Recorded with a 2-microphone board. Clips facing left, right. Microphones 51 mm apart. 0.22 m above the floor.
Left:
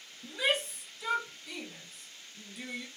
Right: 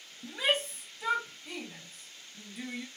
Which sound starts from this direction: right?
A shout, at 0.2 s.